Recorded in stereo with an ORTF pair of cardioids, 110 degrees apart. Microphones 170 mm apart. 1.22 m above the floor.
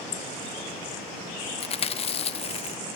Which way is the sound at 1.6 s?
35° left.